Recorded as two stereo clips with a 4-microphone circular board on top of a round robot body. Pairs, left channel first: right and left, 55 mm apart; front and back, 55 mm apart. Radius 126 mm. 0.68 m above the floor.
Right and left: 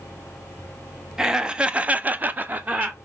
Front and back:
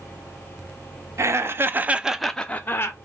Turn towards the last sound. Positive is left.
turn(degrees=35)